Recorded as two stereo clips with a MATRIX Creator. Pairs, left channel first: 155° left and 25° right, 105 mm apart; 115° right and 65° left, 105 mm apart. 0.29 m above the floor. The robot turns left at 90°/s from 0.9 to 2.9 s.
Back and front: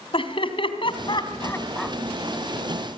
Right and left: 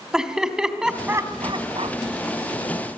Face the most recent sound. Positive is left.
turn(degrees=-30)